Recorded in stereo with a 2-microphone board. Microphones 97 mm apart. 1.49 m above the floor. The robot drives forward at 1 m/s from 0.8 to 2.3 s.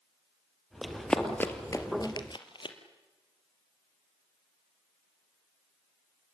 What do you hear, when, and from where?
0.8 s running footsteps: centre (ahead or behind), 2.5 m; by 2.8 s 60° left (ahead or behind), 2.5 m